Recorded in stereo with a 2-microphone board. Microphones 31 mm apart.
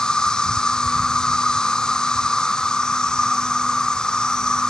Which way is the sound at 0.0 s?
20° left (ahead or behind).